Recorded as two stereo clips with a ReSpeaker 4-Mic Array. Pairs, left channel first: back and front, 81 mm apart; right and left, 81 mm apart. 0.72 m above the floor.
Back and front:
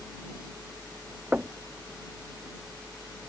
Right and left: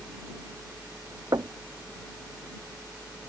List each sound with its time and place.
1.3 s knocking: 65° left